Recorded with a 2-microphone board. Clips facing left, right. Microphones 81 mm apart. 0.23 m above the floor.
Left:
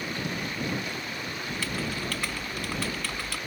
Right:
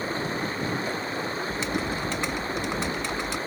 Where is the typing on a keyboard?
20° right (ahead or behind).